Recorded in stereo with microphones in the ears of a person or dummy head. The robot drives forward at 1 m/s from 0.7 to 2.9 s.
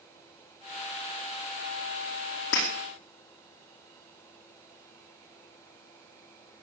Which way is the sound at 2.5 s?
70° left (ahead or behind).